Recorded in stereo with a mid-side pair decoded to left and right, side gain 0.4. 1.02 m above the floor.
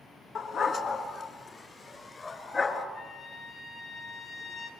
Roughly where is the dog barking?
Ahead left.